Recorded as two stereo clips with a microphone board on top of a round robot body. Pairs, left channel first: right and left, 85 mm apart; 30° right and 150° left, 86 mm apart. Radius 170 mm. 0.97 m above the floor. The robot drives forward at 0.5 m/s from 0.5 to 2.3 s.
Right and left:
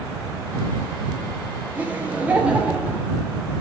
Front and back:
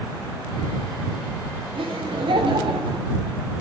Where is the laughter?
165° left, 3 m.